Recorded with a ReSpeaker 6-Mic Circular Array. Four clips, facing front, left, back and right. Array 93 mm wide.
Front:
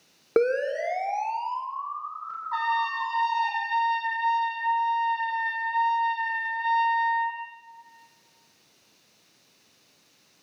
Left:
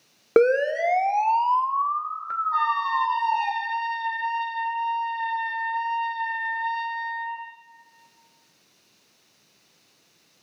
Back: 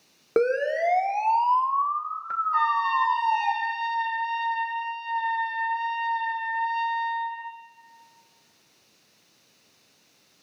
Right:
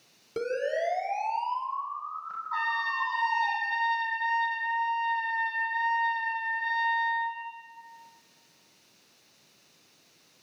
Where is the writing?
No writing in this recording.